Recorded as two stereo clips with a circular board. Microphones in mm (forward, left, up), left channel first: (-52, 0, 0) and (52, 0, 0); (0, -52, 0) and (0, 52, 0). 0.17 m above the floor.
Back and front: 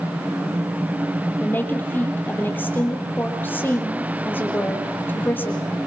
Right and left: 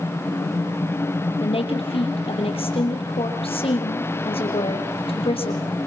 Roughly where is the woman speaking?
Right.